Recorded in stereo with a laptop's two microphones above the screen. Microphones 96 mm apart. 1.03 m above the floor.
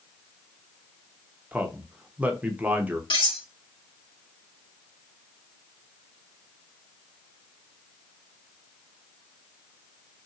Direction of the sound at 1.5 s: 15° right (ahead or behind).